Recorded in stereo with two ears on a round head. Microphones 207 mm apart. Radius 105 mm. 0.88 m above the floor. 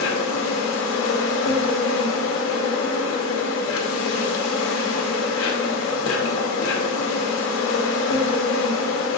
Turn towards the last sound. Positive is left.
turn(degrees=60)  # may be behind; listen again after turning